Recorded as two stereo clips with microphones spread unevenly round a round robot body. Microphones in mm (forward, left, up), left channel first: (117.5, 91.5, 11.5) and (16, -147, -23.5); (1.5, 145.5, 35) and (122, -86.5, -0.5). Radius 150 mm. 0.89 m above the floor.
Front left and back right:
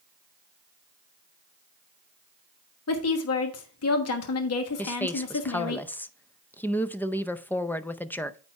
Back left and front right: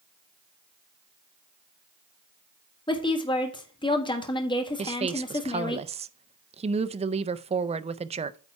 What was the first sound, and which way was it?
A woman speaking, 45° left.